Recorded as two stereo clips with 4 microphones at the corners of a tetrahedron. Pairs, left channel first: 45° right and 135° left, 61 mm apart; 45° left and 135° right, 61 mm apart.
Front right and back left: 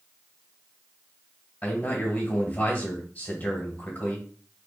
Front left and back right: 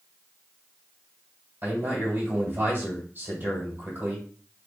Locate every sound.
1.6 s a man speaking: 100° right, 2.0 m